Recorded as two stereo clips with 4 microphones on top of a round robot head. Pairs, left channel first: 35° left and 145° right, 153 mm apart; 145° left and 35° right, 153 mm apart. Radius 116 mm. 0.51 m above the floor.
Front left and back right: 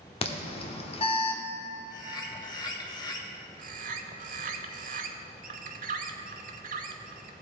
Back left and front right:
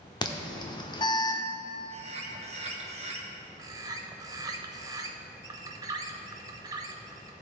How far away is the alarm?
About 0.9 m.